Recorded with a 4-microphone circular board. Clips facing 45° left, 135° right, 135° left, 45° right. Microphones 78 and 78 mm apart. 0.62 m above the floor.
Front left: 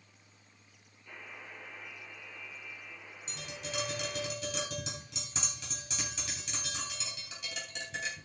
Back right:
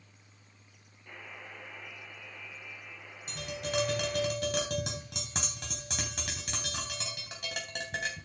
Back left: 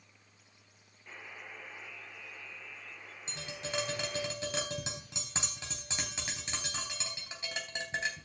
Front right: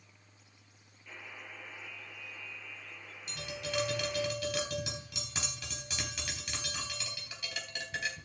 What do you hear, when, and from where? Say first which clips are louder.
1.1 s a buzzer: back right 1 dB, even; 170° right, 7.5 m
3.3 s tapping: back right 7 dB, front right 1 dB; 165° right, 3.5 m